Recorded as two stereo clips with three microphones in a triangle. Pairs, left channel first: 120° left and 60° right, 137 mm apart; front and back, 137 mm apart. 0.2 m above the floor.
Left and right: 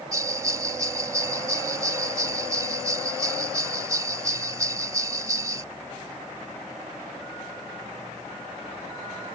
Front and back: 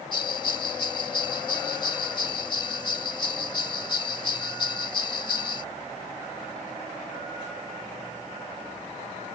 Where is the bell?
10° right.